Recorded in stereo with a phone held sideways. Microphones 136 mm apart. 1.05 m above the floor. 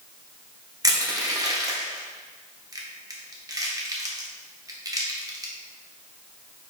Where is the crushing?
25° right (ahead or behind), 0.6 m.